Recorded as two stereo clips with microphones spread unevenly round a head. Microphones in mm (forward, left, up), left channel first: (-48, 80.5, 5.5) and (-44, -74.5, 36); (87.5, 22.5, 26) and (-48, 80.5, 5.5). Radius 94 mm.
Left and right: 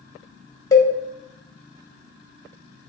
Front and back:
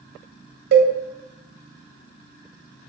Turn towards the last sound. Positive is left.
turn(degrees=165)